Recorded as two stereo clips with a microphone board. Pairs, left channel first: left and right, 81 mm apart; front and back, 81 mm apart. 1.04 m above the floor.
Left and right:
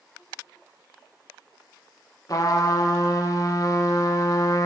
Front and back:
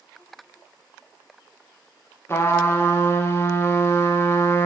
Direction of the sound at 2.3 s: 55° left.